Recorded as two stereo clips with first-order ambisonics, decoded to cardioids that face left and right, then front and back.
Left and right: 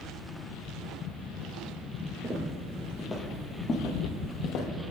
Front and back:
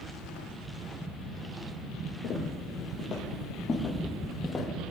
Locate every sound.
2.2 s footsteps: 20° right, 1.7 m; by 4.7 s 80° left, 1.9 m